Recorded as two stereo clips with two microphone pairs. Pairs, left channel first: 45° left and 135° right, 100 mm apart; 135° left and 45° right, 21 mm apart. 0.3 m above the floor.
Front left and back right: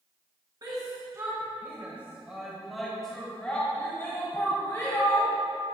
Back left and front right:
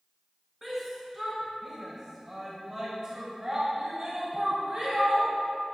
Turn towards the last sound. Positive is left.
turn(degrees=0)